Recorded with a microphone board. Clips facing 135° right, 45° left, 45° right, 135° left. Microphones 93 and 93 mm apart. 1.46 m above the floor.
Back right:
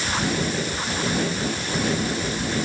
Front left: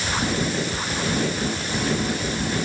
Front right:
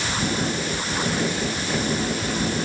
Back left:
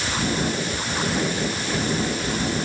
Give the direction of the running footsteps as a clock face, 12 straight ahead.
No running footsteps in this recording.